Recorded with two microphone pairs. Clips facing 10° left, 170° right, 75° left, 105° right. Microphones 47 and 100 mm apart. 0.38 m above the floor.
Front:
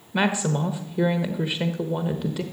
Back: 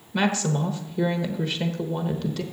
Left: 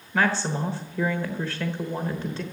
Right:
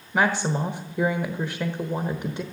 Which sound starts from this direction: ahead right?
A woman speaking, at 0.1 s.